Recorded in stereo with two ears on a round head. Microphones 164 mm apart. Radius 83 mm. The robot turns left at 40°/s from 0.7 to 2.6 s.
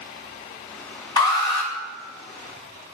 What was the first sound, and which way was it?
An alarm, 25° left (ahead or behind).